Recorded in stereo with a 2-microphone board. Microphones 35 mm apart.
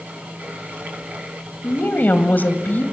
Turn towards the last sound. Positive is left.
turn(degrees=55)  # may be behind; listen again after turning